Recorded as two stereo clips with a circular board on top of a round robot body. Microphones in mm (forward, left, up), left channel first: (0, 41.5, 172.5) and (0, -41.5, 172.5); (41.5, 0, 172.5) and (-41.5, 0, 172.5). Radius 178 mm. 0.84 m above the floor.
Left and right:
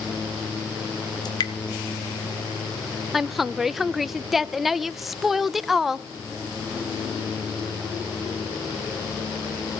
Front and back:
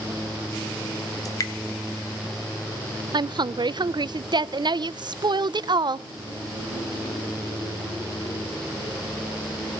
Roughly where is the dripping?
Ahead left.